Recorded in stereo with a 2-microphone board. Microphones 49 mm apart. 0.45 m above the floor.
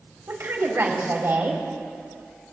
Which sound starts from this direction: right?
A woman speaking, at 0.3 s.